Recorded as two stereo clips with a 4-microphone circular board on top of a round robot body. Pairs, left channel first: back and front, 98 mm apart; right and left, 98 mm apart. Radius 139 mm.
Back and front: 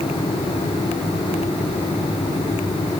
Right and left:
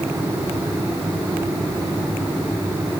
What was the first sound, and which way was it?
Only background noise.